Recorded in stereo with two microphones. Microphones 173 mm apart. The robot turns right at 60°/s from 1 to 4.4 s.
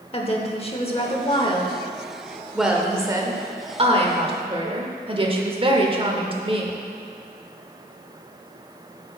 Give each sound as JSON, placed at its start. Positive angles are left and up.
{"t": 0.1, "sound": "a woman speaking", "azimuth_deg": 90, "distance_m": 0.9}